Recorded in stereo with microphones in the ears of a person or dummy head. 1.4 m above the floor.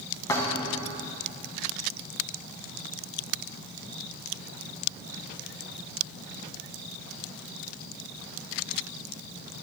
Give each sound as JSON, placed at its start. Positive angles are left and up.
{"t": 0.3, "sound": "a thud", "side_deg": 25, "distance_m": 2.5}